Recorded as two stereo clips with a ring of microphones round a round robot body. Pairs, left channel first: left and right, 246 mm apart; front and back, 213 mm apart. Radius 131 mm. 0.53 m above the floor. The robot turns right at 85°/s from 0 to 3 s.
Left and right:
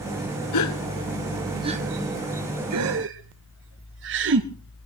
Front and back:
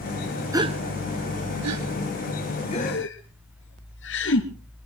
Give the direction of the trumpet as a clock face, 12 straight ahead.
I don't hear a trumpet.